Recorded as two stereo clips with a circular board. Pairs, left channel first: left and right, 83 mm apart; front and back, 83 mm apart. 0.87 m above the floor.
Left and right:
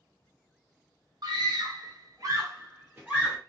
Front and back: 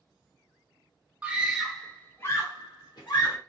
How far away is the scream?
About 0.8 m.